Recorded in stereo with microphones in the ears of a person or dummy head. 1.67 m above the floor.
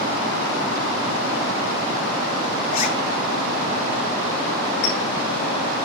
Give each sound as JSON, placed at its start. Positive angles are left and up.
{"t": 2.7, "sound": "a zipper", "side_deg": 45, "distance_m": 1.4}
{"t": 4.8, "sound": "a clink", "side_deg": 60, "distance_m": 3.0}